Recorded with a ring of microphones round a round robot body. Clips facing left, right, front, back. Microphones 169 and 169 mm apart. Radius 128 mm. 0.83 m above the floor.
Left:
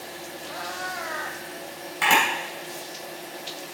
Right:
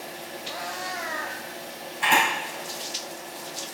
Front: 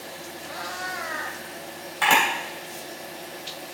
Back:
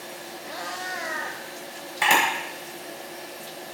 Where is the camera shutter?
105° left, 3 m.